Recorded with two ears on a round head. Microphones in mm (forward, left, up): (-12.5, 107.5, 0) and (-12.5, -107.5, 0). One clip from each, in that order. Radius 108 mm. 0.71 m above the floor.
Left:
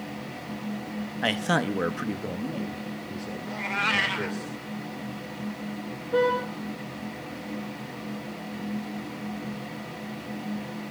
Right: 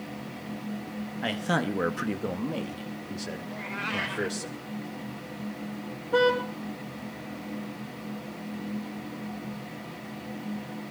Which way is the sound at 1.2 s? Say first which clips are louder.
Left 3 dB; 30° left (ahead or behind).